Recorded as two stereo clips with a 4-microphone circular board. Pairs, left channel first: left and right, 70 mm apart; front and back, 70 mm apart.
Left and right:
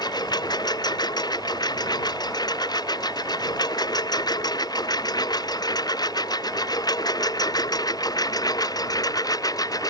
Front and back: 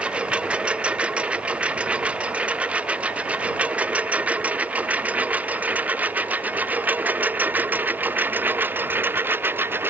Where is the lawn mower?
105° left; by 9.9 s 120° left.